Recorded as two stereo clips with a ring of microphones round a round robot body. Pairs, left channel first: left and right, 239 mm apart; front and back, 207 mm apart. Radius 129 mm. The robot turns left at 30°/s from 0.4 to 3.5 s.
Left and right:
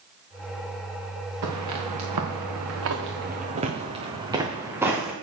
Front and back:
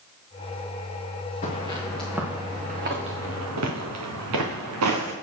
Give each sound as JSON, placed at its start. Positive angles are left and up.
{"t": 1.4, "sound": "footsteps", "azimuth_deg": -60, "distance_m": 3.0}